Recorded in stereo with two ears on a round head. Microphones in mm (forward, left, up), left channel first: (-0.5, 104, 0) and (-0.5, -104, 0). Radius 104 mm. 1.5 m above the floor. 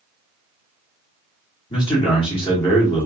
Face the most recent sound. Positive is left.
turn(degrees=20)  # may be behind; listen again after turning